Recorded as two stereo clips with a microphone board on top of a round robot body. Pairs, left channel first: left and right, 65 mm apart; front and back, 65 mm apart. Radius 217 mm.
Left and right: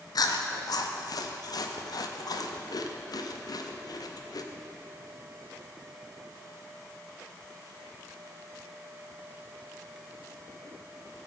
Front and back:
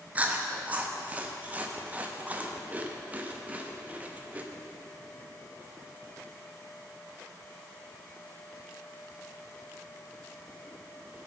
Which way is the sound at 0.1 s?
115° left.